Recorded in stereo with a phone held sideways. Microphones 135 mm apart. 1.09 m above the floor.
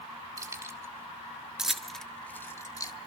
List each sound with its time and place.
0.4 s keys jangling: 25° right (ahead or behind), 2.0 m; by 2.9 s 30° left (ahead or behind), 1.3 m